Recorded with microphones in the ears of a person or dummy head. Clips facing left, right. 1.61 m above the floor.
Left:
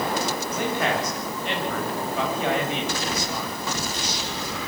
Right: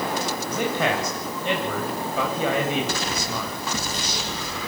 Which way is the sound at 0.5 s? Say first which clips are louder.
Right 2 dB; 80° right.